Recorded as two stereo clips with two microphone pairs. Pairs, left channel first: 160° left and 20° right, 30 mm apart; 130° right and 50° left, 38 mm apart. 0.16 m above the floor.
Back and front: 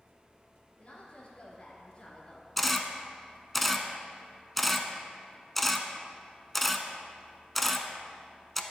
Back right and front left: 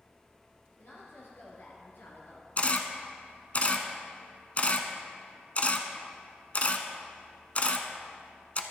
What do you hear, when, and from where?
0.8 s a woman speaking: 140° right, 3.5 m
2.6 s a camera shutter: 110° right, 0.7 m